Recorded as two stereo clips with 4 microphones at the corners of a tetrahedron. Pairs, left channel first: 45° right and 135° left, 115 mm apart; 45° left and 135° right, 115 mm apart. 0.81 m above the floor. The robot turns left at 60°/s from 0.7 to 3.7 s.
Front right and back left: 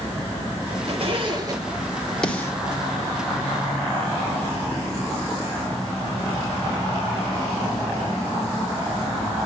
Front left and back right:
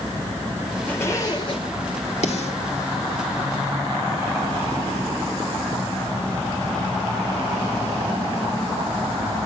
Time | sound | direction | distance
0.9 | a zipper | 120° left | 2 m
2.2 | a snare drum | 40° left | 2 m